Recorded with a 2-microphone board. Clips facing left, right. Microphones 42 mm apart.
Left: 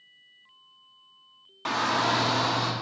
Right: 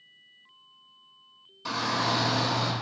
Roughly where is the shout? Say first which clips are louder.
Left 3 dB; left.